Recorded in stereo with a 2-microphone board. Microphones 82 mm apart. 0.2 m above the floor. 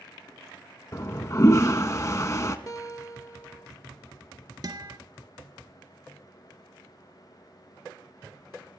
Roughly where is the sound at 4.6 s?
Right.